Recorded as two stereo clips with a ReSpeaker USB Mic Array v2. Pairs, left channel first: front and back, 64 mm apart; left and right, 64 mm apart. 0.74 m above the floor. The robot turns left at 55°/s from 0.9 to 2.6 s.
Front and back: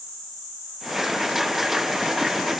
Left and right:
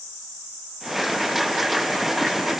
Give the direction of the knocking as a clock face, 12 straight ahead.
I don't hear knocking.